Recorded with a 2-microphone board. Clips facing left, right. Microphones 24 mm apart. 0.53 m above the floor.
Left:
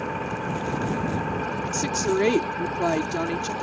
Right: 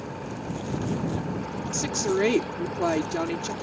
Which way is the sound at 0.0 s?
75° left (ahead or behind).